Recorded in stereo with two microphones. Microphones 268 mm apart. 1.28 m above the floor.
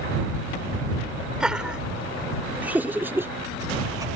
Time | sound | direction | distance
1.4 | laughter | 5° right (ahead or behind) | ?